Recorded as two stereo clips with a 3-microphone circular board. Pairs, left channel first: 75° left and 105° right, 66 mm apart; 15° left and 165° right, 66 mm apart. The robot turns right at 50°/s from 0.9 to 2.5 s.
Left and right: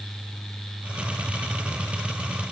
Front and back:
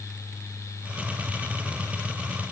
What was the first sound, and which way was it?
Only background noise.